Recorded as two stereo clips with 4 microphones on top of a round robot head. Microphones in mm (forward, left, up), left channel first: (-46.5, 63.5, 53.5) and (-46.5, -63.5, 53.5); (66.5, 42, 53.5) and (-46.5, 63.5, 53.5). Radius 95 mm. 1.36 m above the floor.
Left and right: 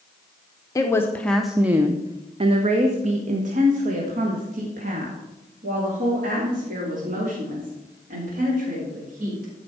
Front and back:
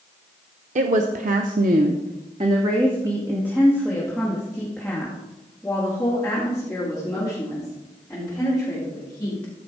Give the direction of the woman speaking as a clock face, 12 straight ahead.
7 o'clock.